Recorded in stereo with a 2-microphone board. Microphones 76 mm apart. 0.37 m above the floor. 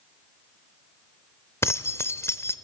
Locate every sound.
1.6 s keys jangling: 35° left (ahead or behind), 0.6 m